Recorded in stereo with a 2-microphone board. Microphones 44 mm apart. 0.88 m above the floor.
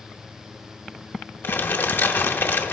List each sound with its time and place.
1.4 s crumpling: 60° left (ahead or behind), 0.8 m